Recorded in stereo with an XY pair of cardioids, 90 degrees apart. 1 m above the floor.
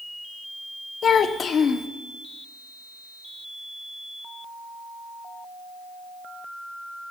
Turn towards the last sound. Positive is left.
turn(degrees=60)